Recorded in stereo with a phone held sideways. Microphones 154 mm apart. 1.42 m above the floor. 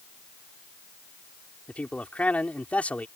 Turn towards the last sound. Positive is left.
turn(degrees=10)  # may be behind; listen again after turning